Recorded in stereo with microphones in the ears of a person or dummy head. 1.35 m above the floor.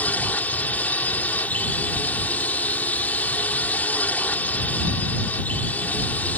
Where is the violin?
I don't hear a violin.